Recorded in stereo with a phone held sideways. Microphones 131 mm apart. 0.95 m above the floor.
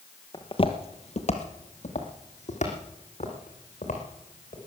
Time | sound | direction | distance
0.3 | footsteps | 35° left (ahead or behind) | 1.1 m